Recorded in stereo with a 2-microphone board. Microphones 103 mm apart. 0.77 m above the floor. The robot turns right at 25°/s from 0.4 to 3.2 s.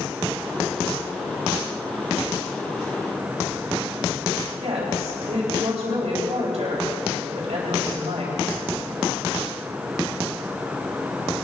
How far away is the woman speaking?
About 4.5 m.